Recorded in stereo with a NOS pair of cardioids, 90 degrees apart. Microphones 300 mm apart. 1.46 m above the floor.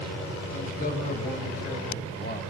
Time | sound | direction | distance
0.5 | a man speaking | 25° left | 6.5 m